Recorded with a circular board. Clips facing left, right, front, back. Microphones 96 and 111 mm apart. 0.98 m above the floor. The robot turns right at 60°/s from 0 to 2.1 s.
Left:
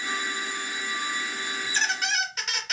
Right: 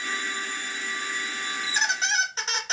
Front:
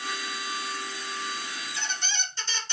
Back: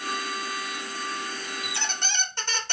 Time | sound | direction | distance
1.6 | a squeak | straight behind | 0.8 m